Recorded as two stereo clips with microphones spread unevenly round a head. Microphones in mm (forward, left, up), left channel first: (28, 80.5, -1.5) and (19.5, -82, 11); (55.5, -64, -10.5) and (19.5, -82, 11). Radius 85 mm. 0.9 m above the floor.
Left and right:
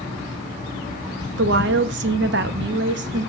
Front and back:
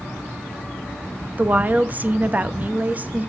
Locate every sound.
1.4 s a woman speaking: 90° right, 1.0 m